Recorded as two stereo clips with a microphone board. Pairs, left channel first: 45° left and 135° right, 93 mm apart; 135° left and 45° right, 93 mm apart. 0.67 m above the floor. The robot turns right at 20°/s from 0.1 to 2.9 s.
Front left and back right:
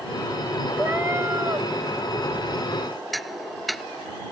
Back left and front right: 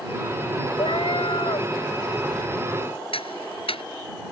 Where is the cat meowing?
155° left; by 1.7 s 175° left.